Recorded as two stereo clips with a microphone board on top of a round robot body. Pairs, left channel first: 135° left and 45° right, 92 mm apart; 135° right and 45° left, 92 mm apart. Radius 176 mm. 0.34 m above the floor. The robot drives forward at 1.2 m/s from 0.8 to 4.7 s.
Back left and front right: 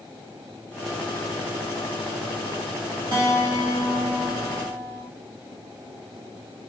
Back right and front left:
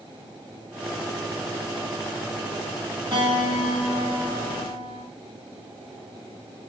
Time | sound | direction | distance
3.1 | a guitar | 5° left | 6 m